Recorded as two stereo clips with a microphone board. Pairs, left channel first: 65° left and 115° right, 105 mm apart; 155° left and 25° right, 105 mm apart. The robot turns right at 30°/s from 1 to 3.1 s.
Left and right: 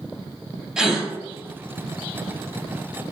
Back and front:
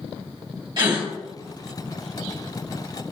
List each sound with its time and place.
0.8 s a gasp: 30° right, 1.4 m